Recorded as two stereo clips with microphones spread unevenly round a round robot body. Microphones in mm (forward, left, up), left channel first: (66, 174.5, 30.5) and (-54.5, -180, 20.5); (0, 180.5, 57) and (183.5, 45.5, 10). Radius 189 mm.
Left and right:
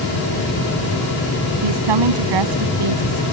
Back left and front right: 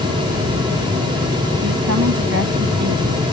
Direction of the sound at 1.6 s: 85° right.